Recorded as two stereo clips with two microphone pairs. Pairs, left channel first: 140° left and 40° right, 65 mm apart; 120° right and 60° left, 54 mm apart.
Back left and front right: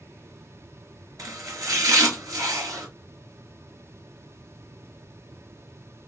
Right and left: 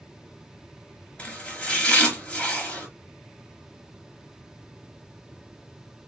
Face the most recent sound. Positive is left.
turn(degrees=-55)